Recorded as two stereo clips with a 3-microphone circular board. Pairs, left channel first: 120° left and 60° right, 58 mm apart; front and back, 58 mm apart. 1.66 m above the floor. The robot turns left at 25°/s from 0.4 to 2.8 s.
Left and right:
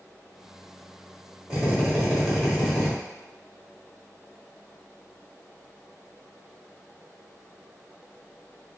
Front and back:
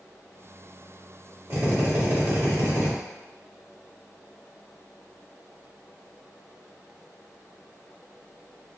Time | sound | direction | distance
1.5 | a drill | 130° right | 1.5 m